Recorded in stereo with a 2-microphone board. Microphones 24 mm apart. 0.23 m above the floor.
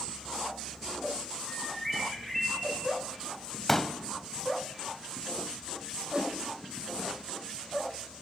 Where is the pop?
10° left (ahead or behind), 1.1 m.